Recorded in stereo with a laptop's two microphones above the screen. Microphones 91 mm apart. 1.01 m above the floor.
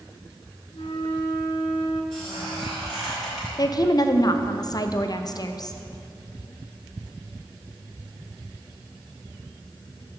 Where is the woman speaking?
45° left (ahead or behind), 0.5 m.